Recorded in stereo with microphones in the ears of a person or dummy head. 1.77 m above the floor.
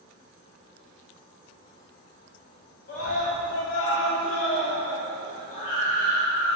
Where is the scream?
45° left (ahead or behind), 1.1 m; by 6.6 s 50° left (ahead or behind), 2 m.